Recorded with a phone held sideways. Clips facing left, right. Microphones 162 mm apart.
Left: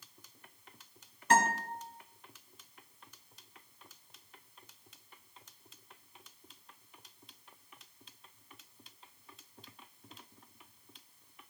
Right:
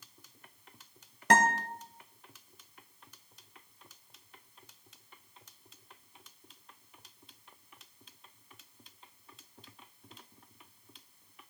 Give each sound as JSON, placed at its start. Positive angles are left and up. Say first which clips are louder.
{"t": 1.3, "sound": "a guitar", "louder": "right 2 dB", "side_deg": -80, "distance_m": 1.2}